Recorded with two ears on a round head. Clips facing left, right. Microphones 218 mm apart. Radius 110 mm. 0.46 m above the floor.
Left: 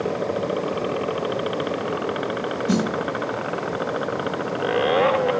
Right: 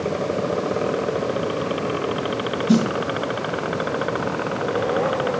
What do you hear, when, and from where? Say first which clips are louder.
2.7 s a snare drum: right 5 dB; 30° left (ahead or behind), 1.8 m